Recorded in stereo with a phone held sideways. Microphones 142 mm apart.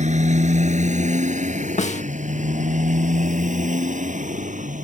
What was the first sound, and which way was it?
A motorcycle, 55° right (ahead or behind).